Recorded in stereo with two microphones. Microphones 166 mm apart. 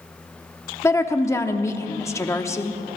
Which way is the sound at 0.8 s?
15° left (ahead or behind).